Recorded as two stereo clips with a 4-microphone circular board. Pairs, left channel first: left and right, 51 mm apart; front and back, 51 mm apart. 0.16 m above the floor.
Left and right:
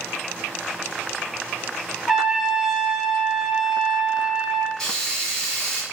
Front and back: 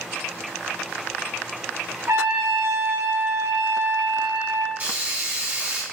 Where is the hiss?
170° left, 1.9 m.